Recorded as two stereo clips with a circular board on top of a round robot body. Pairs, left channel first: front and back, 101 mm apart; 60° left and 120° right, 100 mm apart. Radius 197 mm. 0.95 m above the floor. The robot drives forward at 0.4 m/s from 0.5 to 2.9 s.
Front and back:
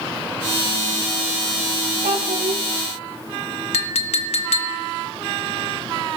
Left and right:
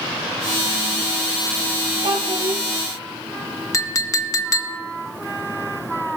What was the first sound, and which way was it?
A child speaking, 160° right.